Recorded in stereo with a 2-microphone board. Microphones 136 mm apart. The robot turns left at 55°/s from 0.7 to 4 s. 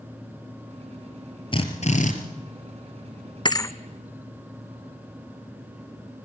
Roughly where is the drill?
Behind left.